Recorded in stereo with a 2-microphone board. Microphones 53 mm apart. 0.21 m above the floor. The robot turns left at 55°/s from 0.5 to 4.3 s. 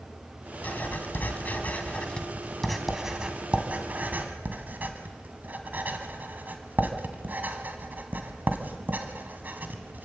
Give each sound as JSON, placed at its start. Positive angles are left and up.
{"t": 0.6, "sound": "writing", "side_deg": 30, "distance_m": 1.9}